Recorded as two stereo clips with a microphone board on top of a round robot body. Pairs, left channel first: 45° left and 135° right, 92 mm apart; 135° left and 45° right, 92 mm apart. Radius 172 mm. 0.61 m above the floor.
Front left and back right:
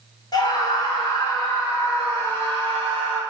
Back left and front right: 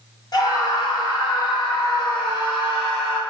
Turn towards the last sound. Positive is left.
turn(degrees=110)